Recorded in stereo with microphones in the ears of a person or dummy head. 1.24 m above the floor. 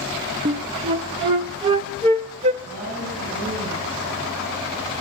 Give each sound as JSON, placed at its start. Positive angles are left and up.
{"t": 0.5, "sound": "a flute", "side_deg": -25, "distance_m": 0.6}
{"t": 2.6, "sound": "a woman speaking", "side_deg": -50, "distance_m": 6.5}